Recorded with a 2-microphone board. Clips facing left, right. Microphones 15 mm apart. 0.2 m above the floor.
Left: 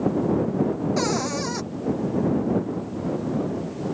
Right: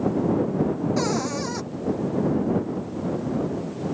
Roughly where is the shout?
I don't hear a shout.